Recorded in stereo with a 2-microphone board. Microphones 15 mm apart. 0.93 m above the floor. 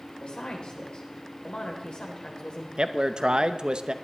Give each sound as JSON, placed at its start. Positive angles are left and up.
{"t": 0.2, "sound": "a woman speaking", "side_deg": 75, "distance_m": 3.5}
{"t": 2.8, "sound": "a man speaking", "side_deg": -60, "distance_m": 0.7}